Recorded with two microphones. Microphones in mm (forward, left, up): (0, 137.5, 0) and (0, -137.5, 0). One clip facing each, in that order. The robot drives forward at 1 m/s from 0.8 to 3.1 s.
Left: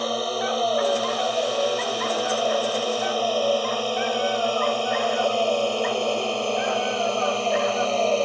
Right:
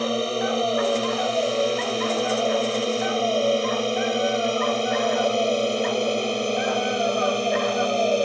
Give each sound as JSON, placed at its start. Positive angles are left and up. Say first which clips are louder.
{"t": 0.0, "sound": "a drone", "louder": "right 3 dB", "side_deg": -30}